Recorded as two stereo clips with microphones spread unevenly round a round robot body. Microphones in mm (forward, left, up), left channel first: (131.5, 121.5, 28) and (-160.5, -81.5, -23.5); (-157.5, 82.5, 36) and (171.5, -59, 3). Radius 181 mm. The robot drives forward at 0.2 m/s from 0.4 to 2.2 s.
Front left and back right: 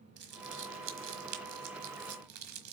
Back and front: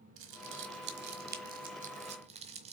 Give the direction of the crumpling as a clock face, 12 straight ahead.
3 o'clock.